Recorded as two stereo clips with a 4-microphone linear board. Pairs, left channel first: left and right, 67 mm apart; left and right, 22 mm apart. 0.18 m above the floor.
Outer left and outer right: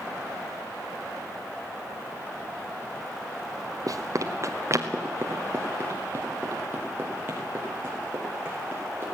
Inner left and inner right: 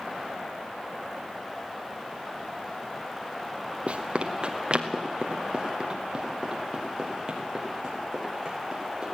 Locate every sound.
3.9 s running footsteps: 60° right (ahead or behind), 1.6 m; by 9.1 s 25° right (ahead or behind), 8 m